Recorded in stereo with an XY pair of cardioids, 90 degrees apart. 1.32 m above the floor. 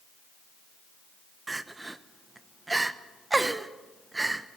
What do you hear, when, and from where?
1.5 s crying: 25° right, 1.0 m